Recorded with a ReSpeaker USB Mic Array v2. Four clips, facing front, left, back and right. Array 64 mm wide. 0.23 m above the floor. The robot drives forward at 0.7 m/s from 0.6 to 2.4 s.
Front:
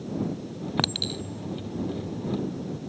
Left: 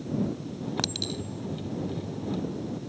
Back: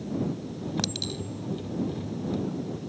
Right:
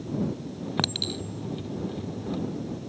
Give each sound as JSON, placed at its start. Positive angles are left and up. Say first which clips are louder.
{"t": 0.8, "sound": "a clink", "louder": "right 2 dB, front 3 dB", "azimuth_deg": -25}